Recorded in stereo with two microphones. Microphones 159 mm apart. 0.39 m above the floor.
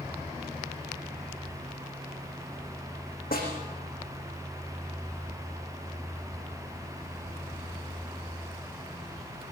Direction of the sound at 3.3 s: 70° left (ahead or behind).